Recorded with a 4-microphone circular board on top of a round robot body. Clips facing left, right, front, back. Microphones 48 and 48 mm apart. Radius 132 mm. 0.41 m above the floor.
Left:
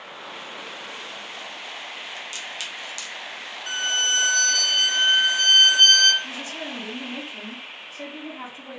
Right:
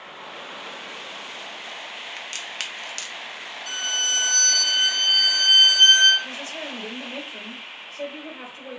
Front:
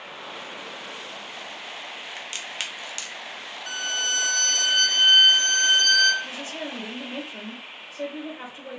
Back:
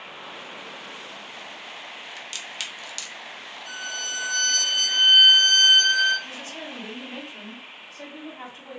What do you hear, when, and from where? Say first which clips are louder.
2.2 s a crack: right 2 dB, front 2 dB; 60° right, 0.8 m
3.7 s a violin: left 3 dB, front 5 dB; 35° left, 1.0 m
6.2 s a woman speaking: even, front 3 dB; 30° right, 2.5 m